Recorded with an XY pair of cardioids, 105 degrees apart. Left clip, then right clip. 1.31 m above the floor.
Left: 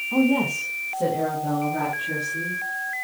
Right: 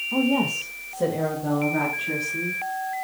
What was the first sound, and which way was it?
A woman speaking, 10° left.